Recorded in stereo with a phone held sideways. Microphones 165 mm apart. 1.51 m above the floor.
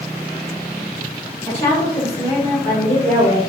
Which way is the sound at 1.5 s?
35° left (ahead or behind).